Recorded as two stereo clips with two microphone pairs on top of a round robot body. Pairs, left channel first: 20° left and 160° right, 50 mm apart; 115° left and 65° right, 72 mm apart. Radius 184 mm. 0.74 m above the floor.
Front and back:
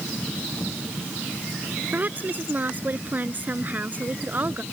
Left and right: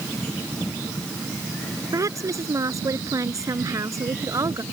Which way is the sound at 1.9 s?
105° right.